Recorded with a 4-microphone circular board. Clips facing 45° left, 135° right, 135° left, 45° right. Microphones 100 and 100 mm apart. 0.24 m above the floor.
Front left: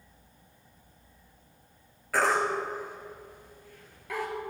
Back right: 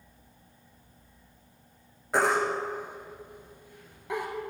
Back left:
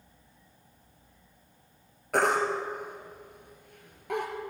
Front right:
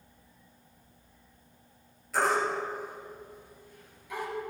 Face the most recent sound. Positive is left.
turn(degrees=160)